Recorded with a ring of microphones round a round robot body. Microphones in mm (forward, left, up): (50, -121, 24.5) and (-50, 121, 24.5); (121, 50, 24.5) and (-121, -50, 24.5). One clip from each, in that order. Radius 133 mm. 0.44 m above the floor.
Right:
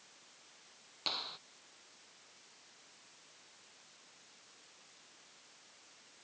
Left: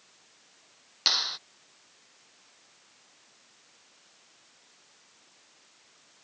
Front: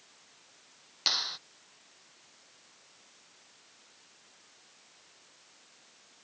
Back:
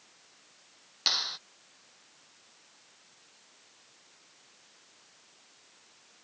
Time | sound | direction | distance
1.1 | a clap | 115° left | ?